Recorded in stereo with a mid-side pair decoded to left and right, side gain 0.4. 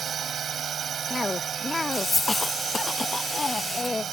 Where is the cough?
25° left.